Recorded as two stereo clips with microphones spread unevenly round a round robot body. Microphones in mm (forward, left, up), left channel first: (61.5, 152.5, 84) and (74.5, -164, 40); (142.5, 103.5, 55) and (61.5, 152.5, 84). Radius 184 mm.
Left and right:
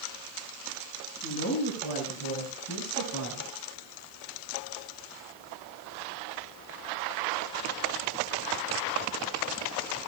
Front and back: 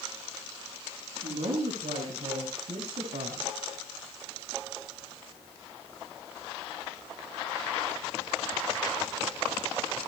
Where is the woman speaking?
155° left, 5.5 m; by 3.5 s 145° left, 5 m.